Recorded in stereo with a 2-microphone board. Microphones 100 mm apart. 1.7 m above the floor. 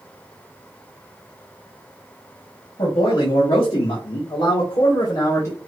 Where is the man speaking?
85° left, 2 m; by 5.6 s 25° left (ahead or behind), 1.1 m.